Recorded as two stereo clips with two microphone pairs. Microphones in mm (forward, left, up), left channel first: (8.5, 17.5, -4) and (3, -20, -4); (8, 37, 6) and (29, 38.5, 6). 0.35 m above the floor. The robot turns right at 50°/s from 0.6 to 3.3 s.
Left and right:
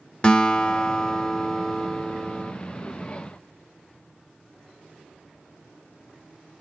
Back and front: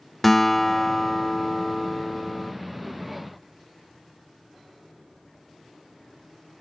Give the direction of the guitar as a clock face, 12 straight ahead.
8 o'clock.